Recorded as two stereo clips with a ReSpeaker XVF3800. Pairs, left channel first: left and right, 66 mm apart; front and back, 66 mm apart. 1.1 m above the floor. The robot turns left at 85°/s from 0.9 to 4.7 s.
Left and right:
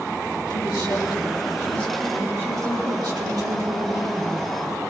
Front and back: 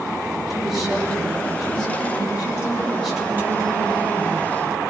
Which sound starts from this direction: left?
A woman speaking, at 0.5 s.